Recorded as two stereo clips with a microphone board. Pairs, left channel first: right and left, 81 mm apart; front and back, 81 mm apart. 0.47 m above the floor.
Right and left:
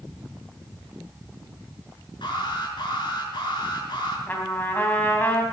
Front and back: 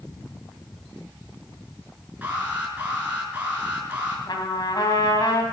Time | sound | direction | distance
2.2 | an alarm | 110° right | 5 m
4.3 | a trumpet | 25° right | 3 m